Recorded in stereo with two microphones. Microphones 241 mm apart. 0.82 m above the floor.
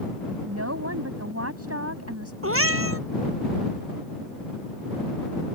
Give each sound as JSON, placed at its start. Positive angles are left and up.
{"t": 0.5, "sound": "a woman speaking", "side_deg": -85}
{"t": 2.4, "sound": "a cat meowing", "side_deg": -65}